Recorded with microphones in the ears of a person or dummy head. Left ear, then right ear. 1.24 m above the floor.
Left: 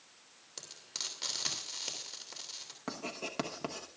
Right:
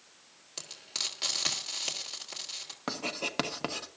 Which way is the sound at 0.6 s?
15° right (ahead or behind).